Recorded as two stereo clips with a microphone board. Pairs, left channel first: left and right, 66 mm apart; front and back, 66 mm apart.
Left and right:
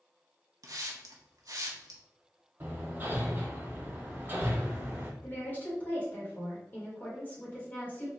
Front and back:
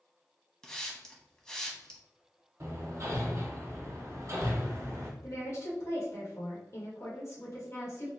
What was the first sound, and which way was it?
A hiss, 80° right.